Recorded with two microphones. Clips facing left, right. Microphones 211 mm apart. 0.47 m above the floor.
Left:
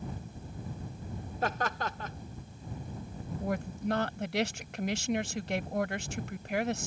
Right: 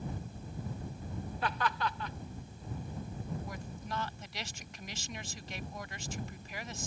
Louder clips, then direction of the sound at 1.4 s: Left 2 dB; 45° left (ahead or behind).